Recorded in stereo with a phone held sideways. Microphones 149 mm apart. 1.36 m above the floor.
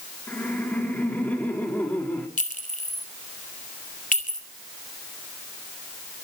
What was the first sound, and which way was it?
Laughter, 10° left (ahead or behind).